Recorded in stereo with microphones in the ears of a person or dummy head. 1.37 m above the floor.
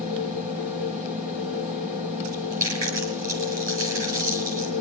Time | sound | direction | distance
0.0 | a machine running | 40° right (ahead or behind) | 2 m
2.2 | chewing | 45° right (ahead or behind) | 4 m